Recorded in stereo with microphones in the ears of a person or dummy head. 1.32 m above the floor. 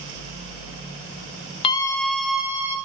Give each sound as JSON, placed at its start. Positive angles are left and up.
{"t": 1.6, "sound": "a scream", "side_deg": 25, "distance_m": 0.9}